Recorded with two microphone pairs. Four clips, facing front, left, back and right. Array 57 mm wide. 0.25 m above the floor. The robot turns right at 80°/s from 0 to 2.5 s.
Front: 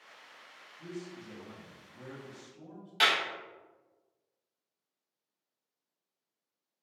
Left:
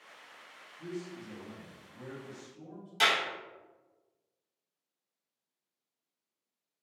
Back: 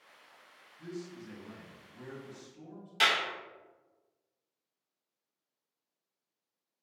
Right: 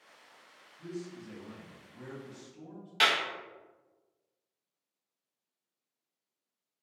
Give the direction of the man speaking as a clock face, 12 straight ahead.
6 o'clock.